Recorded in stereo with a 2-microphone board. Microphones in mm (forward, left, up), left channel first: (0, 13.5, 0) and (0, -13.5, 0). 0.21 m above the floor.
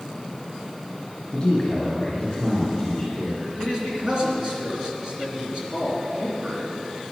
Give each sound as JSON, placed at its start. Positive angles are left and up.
{"t": 1.3, "sound": "a man speaking", "side_deg": 30, "distance_m": 3.5}
{"t": 3.6, "sound": "a man speaking", "side_deg": -30, "distance_m": 3.0}